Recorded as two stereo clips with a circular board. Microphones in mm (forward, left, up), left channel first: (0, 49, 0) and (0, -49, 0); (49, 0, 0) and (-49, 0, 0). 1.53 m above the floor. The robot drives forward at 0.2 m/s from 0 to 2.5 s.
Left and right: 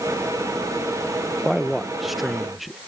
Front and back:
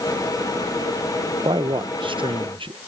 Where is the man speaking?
Straight behind.